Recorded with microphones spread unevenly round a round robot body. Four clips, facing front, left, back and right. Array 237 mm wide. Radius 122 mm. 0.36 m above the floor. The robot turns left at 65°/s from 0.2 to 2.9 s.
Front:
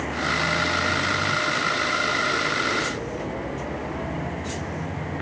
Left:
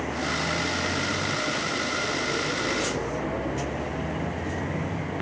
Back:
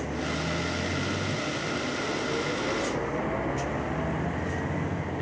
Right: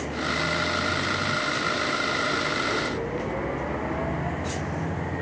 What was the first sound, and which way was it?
Only background noise.